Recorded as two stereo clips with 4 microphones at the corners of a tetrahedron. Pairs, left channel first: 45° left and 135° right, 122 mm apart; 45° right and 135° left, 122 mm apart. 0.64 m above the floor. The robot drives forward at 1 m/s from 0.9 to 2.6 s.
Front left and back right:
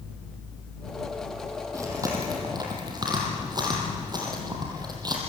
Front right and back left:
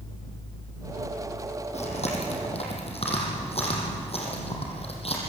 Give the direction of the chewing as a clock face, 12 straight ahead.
2 o'clock.